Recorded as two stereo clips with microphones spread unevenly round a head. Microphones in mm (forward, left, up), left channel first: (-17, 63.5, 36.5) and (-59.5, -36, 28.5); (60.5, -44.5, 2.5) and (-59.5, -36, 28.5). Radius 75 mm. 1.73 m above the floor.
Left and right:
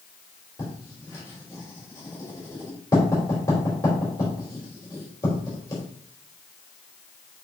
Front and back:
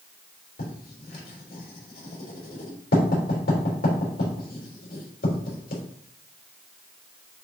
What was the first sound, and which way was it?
Writing, straight ahead.